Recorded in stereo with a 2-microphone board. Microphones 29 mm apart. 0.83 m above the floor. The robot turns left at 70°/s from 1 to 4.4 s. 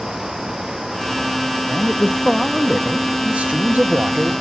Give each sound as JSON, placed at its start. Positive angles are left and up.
{"t": 1.7, "sound": "a man speaking", "azimuth_deg": 60, "distance_m": 0.9}